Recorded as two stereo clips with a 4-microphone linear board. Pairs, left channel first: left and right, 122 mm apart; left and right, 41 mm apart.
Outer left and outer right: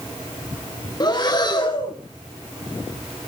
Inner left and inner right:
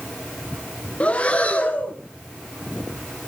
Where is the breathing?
35° left (ahead or behind), 2 m.